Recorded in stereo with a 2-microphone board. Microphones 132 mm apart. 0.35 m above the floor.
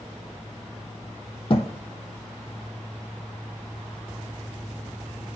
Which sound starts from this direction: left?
A thud, at 1.5 s.